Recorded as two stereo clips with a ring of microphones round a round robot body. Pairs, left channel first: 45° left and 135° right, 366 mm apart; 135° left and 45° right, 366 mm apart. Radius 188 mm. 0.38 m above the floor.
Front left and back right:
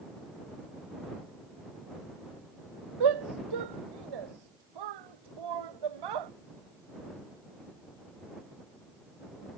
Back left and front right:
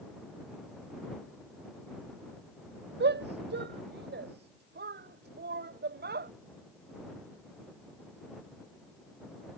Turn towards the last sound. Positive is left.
turn(degrees=-110)